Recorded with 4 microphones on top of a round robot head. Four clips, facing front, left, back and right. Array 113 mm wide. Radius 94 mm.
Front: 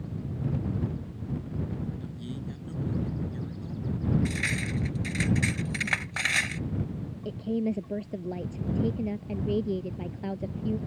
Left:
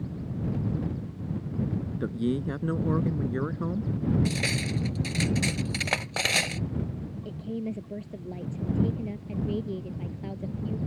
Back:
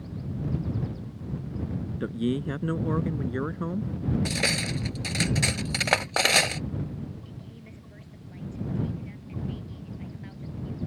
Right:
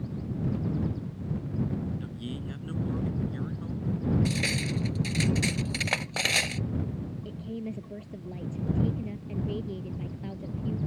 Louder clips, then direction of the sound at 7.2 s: Left 6 dB, front 16 dB; 10° left.